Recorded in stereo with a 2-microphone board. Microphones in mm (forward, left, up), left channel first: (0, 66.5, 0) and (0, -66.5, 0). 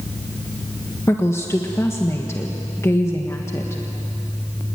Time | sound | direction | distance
1.1 | a woman speaking | 20° left (ahead or behind) | 1.5 m